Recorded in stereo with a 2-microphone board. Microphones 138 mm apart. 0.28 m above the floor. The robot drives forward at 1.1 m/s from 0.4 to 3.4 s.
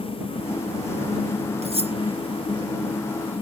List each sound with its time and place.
1.6 s cutlery clinking: 50° right (ahead or behind); by 1.9 s 45° right (ahead or behind)